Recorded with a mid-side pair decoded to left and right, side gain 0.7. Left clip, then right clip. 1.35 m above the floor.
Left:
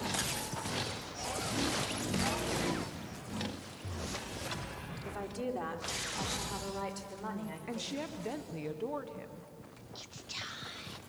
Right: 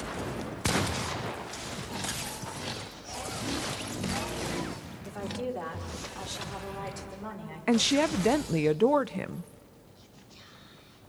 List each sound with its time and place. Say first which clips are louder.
5.0 s a woman speaking: right 4 dB; 5° left, 4.5 m; by 8.1 s 10° left, 7 m
7.7 s a woman speaking: right 16 dB; 55° right, 0.5 m
9.9 s whispering: left 14 dB; 65° left, 1.6 m